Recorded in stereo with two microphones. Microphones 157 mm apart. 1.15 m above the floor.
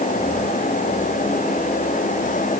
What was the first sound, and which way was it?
Only background noise.